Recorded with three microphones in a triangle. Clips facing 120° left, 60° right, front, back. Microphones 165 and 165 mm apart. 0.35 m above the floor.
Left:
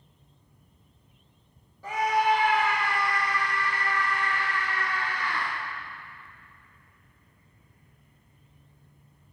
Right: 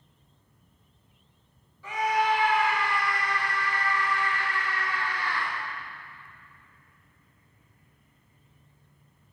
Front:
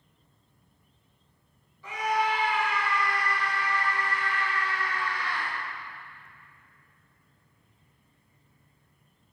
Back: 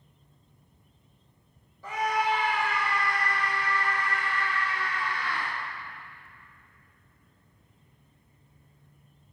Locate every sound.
1.8 s a scream: 150° left, 2 m; by 5.5 s 160° left, 4 m